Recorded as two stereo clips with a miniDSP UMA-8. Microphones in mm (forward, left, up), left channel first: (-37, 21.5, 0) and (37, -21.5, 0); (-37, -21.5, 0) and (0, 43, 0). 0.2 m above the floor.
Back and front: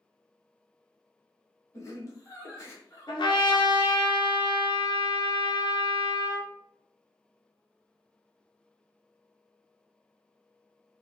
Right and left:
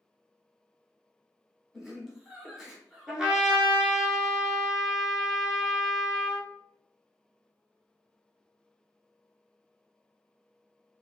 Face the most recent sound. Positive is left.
turn(degrees=140)